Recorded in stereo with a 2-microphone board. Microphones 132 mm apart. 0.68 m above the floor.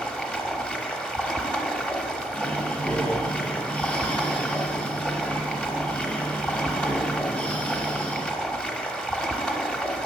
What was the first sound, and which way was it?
Running water, 5° left (ahead or behind).